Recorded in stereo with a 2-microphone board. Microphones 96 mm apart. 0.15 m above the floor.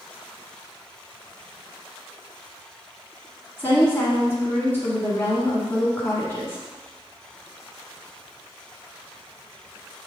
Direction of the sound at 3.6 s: 25° left (ahead or behind).